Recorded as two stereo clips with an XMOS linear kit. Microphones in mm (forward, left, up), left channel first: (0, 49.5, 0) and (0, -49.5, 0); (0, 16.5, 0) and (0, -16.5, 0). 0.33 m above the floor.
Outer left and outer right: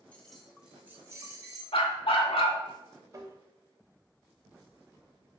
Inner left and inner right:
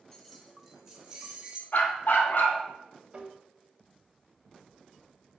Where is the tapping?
35° right (ahead or behind), 0.5 m.